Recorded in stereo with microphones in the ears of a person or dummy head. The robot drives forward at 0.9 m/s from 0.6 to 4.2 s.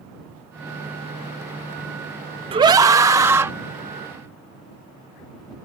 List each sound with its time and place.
2.5 s a scream: 25° right (ahead or behind); by 3.5 s 10° right (ahead or behind)